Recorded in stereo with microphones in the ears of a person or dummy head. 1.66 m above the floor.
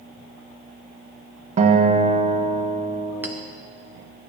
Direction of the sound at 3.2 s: 5° right (ahead or behind).